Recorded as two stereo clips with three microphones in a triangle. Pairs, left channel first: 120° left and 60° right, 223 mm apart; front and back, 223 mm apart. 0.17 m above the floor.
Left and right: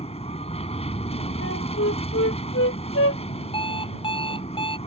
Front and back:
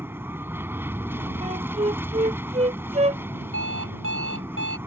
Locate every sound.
0.0 s an aircraft: 110° left
1.4 s a flute: 120° left
3.5 s an alarm clock: 175° right